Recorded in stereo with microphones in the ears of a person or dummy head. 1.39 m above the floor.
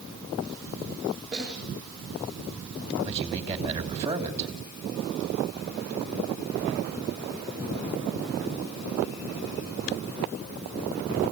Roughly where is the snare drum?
Centre.